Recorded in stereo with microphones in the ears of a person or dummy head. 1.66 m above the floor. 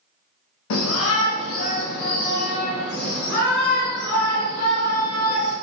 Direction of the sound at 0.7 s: 75° left (ahead or behind).